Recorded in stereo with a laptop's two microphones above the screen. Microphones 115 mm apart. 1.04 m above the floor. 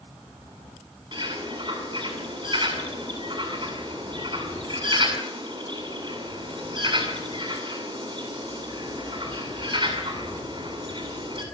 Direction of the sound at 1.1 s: 45° right (ahead or behind).